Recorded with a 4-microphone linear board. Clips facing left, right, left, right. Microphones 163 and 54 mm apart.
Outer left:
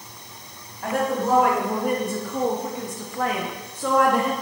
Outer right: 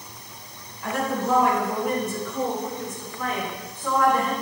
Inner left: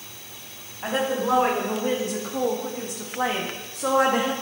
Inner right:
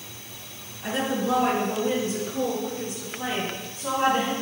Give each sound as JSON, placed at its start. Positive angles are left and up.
{"t": 0.8, "sound": "a woman speaking", "side_deg": 55, "distance_m": 2.5}